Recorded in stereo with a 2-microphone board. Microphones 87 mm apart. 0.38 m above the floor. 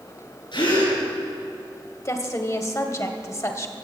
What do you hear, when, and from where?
0.5 s a gasp: 65° left (ahead or behind), 6 m
2.0 s a woman speaking: 35° left (ahead or behind), 1.5 m